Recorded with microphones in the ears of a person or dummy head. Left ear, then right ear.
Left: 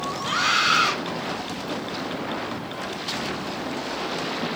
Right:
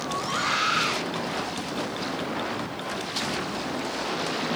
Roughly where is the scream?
Left.